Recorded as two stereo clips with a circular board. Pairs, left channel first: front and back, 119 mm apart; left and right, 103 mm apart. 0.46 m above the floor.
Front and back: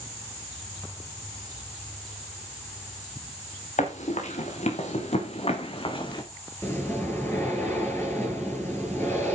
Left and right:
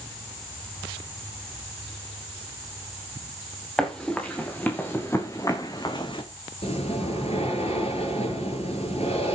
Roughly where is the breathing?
Left.